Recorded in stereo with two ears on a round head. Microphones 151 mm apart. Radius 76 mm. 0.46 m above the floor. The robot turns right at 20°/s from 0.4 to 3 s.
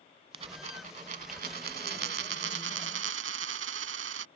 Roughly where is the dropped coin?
Behind right.